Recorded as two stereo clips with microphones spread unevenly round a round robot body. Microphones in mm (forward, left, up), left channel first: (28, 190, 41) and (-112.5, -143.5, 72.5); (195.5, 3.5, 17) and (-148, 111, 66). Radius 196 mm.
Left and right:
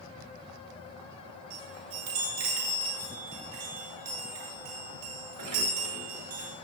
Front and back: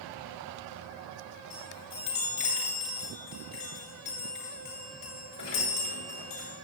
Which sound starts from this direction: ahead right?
A chime, at 1.5 s.